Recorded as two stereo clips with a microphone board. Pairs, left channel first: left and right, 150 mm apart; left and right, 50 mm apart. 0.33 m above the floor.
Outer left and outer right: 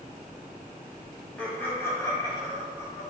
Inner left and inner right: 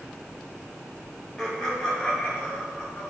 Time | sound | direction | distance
1.4 | laughter | 10° left (ahead or behind) | 1.8 m